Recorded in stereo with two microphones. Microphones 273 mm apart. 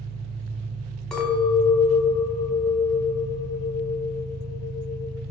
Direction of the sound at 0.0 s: 65° right (ahead or behind).